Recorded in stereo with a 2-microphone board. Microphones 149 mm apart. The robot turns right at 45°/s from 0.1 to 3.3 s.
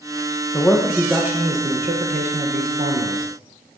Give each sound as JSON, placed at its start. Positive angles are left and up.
{"t": 0.5, "sound": "a man speaking", "azimuth_deg": 160, "distance_m": 1.3}